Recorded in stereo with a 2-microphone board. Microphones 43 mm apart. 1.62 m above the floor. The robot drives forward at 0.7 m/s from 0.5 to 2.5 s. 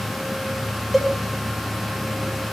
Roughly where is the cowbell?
Centre.